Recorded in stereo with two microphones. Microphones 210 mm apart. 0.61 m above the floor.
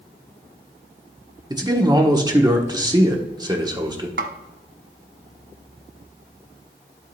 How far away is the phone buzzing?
I don't hear a phone buzzing.